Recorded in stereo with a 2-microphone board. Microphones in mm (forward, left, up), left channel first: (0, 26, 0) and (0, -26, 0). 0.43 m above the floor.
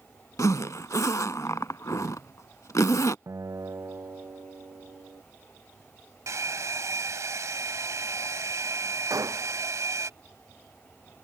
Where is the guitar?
70° right (ahead or behind).